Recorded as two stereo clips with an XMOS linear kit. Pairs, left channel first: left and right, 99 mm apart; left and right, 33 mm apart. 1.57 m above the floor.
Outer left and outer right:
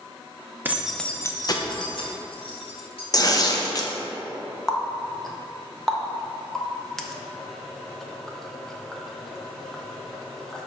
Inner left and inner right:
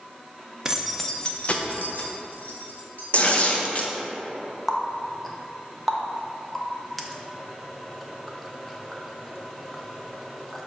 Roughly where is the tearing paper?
Left.